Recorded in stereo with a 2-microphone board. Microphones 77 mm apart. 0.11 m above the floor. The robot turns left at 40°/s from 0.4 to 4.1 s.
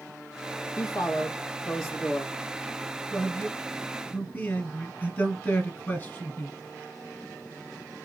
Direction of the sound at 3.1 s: 5° left (ahead or behind).